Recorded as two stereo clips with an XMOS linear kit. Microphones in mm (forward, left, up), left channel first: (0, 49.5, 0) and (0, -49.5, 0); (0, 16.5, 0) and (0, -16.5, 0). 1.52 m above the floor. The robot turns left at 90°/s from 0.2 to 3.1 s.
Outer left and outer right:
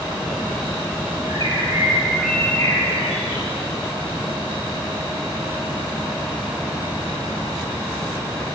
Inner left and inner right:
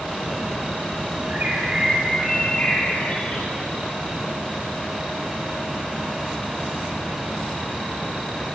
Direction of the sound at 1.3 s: 100° right.